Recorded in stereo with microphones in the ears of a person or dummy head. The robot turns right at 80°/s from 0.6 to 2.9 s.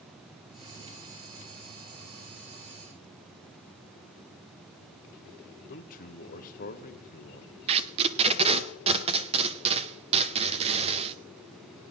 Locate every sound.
5.7 s a man speaking: 45° left (ahead or behind), 1.0 m
7.7 s tape being pulled: 30° right (ahead or behind), 0.7 m